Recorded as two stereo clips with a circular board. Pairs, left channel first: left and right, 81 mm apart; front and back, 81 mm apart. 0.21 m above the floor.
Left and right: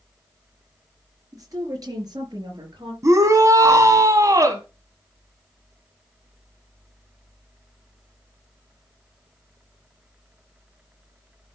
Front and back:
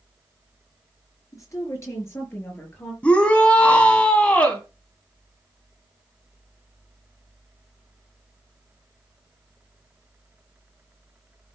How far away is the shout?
About 1.5 m.